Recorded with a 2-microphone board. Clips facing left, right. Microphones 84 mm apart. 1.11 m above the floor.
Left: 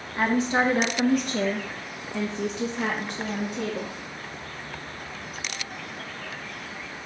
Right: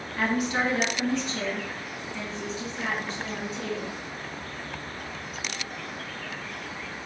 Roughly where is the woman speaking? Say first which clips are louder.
Left 3 dB; left.